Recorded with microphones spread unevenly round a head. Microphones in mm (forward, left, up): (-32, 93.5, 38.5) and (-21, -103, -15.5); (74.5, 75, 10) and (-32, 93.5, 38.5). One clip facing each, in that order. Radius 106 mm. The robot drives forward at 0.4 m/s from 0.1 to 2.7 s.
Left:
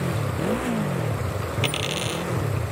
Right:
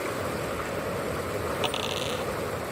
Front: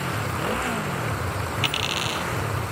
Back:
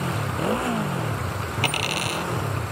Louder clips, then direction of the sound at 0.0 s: Left 4 dB, back 2 dB; 110° left.